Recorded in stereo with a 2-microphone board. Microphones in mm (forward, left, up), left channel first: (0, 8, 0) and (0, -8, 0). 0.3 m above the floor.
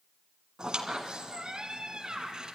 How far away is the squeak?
About 1.8 m.